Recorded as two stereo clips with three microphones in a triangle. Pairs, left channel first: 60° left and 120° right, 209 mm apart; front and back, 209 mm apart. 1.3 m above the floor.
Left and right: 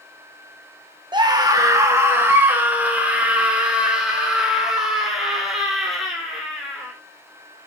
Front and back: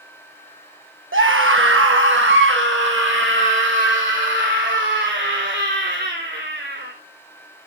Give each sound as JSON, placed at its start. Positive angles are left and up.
{"t": 1.1, "sound": "a scream", "azimuth_deg": 175, "distance_m": 1.1}